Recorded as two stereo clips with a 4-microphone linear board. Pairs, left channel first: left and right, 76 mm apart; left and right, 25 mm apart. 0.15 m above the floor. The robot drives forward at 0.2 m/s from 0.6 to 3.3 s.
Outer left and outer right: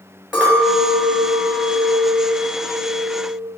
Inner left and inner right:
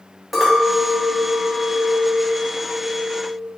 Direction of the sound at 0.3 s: 10° right (ahead or behind).